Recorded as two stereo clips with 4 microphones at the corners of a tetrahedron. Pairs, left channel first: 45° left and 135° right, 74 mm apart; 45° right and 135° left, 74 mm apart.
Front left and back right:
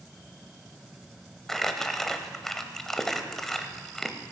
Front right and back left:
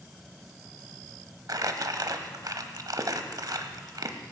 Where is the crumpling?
130° left, 0.9 m.